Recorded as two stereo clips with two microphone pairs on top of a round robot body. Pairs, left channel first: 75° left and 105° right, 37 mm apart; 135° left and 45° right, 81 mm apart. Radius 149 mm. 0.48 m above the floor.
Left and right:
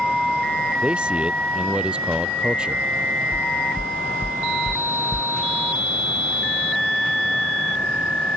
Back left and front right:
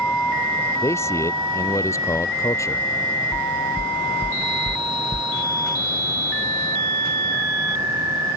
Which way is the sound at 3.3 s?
145° right.